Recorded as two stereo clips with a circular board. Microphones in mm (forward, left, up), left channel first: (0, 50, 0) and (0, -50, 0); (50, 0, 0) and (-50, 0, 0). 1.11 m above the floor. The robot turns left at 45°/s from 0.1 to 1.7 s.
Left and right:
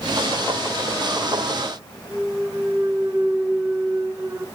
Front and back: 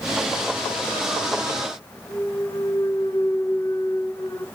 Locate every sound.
2.1 s a clunk: 45° right, 2.5 m